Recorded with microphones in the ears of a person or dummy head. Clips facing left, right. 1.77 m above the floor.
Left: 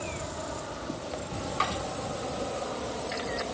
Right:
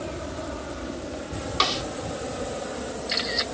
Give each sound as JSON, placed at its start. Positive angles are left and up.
{"t": 0.0, "sound": "an aircraft", "side_deg": -35}
{"t": 1.6, "sound": "a snare drum", "side_deg": -55}